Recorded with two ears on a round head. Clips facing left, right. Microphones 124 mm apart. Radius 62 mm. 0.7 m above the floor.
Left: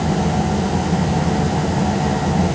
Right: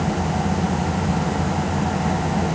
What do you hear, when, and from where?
Only background noise.